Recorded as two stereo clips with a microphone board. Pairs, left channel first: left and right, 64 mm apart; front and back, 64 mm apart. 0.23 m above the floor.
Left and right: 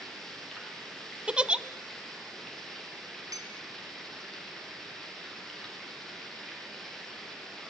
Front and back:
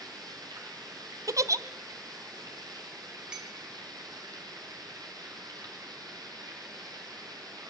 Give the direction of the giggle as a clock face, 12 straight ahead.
5 o'clock.